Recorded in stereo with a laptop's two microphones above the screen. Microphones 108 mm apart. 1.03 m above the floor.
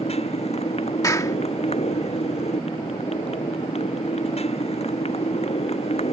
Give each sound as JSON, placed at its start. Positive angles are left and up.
{"t": 0.0, "sound": "a motorcycle", "side_deg": 75}
{"t": 1.0, "sound": "a clap", "side_deg": 30}